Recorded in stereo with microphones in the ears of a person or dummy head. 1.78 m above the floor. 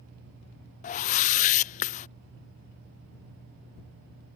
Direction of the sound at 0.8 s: 40° left (ahead or behind).